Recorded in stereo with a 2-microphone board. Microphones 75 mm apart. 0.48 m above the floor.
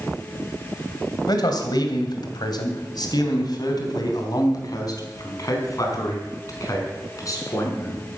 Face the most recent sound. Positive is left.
turn(degrees=45)  # may be behind; listen again after turning